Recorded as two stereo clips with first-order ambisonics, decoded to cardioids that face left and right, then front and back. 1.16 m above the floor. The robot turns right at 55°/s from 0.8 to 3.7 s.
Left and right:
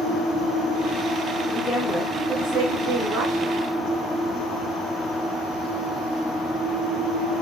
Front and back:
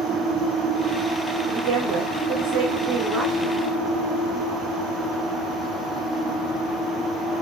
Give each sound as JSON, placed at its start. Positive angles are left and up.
{"t": 1.5, "sound": "a woman speaking", "azimuth_deg": 160, "distance_m": 4.5}